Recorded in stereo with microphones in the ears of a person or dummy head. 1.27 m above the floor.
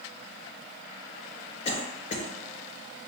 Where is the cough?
40° left (ahead or behind), 0.8 m.